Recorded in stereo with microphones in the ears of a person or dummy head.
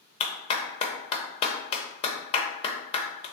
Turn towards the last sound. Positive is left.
turn(degrees=30)  # may be behind; listen again after turning